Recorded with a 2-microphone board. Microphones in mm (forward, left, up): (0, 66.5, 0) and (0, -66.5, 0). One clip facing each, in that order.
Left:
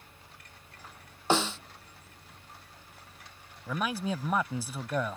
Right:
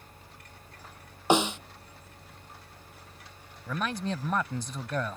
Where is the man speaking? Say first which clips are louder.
Even; 10° left (ahead or behind).